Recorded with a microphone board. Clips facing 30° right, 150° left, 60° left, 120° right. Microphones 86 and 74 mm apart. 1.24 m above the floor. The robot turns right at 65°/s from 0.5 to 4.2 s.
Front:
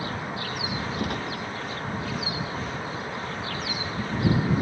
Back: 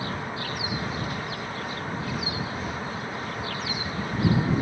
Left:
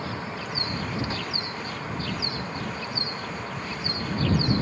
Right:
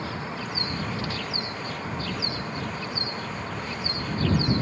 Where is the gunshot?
10° right; by 1.4 s 20° left.